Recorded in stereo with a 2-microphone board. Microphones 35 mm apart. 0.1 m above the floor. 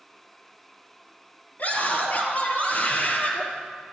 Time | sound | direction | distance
1.6 | a scream | 55° left (ahead or behind) | 2.5 m